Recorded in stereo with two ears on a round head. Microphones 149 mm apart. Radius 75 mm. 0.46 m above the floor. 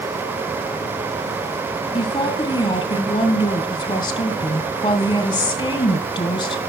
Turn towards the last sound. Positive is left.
turn(degrees=25)  # may be behind; listen again after turning